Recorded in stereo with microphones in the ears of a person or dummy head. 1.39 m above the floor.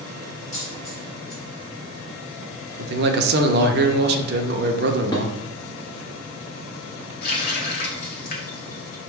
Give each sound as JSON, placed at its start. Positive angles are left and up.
{"t": 0.5, "sound": "a dropped coin", "side_deg": 35, "distance_m": 1.9}
{"t": 2.8, "sound": "a man speaking", "side_deg": -45, "distance_m": 0.6}
{"t": 5.1, "sound": "dishes clattering", "side_deg": 20, "distance_m": 1.1}
{"t": 7.2, "sound": "a running tap", "side_deg": 50, "distance_m": 0.8}